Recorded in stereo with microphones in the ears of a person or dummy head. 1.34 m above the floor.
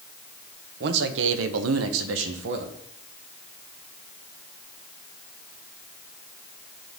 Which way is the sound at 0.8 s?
60° right (ahead or behind).